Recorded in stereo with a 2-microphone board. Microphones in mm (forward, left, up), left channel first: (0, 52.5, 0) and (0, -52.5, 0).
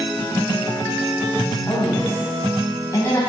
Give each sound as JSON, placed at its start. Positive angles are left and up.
{"t": 1.7, "sound": "a woman speaking", "side_deg": 30, "distance_m": 1.6}